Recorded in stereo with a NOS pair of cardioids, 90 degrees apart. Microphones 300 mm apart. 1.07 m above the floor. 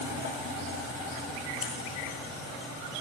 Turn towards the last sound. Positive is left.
turn(degrees=50)